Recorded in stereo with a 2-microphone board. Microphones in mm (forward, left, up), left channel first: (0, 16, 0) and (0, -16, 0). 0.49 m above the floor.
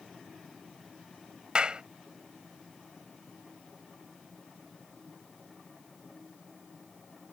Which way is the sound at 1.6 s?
30° right (ahead or behind).